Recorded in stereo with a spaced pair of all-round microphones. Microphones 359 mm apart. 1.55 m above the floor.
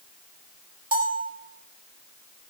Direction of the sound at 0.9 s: 25° right (ahead or behind).